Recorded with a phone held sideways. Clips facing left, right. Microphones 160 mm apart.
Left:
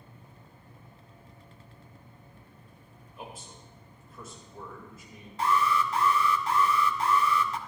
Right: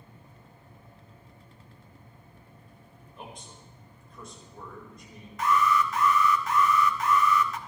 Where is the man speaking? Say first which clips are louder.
Left 1 dB; 5° left (ahead or behind), 4.5 m.